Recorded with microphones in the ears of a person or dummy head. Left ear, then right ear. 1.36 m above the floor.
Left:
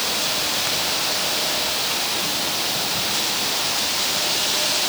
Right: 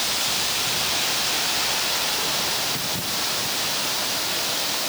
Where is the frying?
No frying in this recording.